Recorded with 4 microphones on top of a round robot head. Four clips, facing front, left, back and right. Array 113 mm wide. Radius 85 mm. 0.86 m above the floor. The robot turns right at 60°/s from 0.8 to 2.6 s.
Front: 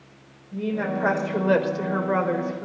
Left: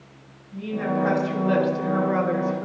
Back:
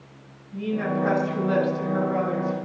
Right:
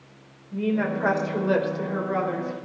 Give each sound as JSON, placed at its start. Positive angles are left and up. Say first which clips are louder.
{"t": 0.5, "sound": "a woman speaking", "louder": "right 1 dB, even", "azimuth_deg": -55, "distance_m": 3.0}